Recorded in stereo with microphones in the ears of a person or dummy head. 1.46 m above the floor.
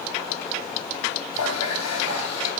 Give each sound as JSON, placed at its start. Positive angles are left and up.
{"t": 1.3, "sound": "a running tap", "side_deg": 85, "distance_m": 6.0}